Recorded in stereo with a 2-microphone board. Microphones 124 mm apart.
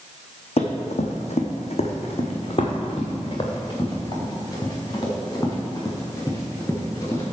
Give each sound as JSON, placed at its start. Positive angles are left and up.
{"t": 0.6, "sound": "running footsteps", "side_deg": 55, "distance_m": 1.6}